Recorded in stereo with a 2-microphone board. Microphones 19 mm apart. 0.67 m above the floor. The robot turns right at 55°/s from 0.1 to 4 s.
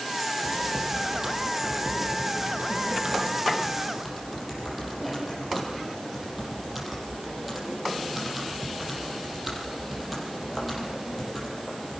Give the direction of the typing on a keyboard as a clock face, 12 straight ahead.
6 o'clock.